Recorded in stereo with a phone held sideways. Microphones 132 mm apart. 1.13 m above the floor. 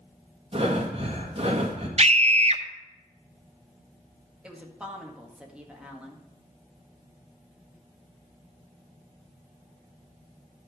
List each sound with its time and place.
0.5 s breathing: 45° right (ahead or behind), 1.8 m
2.0 s a scream: 50° right (ahead or behind), 0.8 m
4.4 s a woman speaking: 5° right (ahead or behind), 1.8 m